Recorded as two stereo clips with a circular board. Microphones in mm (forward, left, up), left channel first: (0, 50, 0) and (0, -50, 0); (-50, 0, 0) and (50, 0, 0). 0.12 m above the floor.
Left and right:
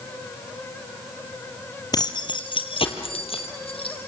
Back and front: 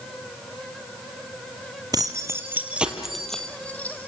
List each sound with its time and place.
1.9 s keys jangling: 45° left, 2 m; by 4.0 s 110° left, 3 m